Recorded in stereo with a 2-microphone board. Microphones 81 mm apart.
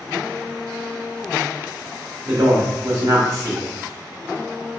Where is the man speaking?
40° right (ahead or behind), 1.4 m.